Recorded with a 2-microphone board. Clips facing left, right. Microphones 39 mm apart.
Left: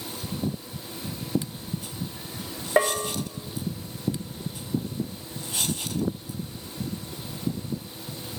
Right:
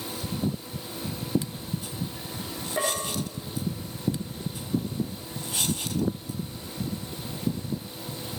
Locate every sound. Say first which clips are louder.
2.8 s a bell: left 6 dB; 80° left, 7 m